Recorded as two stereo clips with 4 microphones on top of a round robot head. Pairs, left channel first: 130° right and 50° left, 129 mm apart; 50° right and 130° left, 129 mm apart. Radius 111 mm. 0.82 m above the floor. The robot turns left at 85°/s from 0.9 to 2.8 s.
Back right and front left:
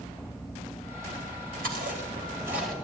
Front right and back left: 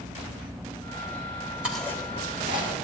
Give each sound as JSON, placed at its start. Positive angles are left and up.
{"t": 1.6, "sound": "chewing", "azimuth_deg": 50, "distance_m": 1.9}